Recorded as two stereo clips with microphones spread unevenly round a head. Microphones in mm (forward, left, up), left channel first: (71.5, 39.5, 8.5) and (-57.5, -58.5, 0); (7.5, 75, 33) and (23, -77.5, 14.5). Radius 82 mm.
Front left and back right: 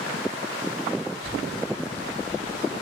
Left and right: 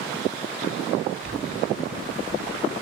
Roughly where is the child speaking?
Left.